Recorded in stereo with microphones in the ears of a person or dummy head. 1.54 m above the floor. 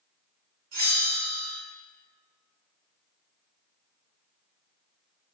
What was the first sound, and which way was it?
A bell, 40° right (ahead or behind).